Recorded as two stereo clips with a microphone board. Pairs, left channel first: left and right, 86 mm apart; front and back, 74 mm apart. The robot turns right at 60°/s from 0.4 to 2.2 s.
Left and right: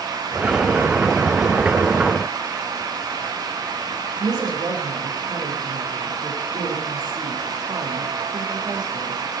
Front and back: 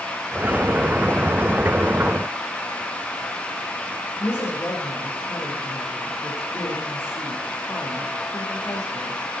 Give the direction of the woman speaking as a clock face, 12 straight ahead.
2 o'clock.